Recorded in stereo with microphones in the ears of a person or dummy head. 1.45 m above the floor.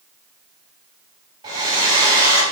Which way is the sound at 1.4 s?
20° right (ahead or behind).